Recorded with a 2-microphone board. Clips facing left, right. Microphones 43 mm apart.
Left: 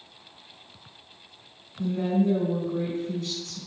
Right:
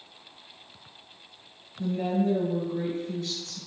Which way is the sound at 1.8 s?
55° left (ahead or behind).